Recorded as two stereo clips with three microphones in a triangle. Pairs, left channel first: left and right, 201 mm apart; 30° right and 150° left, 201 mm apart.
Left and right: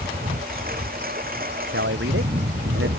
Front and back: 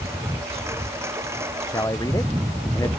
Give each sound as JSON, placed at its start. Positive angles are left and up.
{"t": 0.0, "sound": "a lawn mower", "azimuth_deg": -130}
{"t": 1.7, "sound": "a man speaking", "azimuth_deg": -105}